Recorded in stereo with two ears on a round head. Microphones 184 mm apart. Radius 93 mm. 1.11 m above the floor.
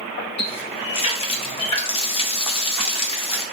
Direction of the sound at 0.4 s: 25° left (ahead or behind).